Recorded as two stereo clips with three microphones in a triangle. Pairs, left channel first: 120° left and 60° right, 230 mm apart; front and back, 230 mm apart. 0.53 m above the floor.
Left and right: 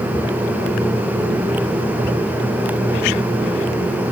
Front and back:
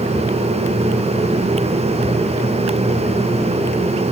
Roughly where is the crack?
I don't hear a crack.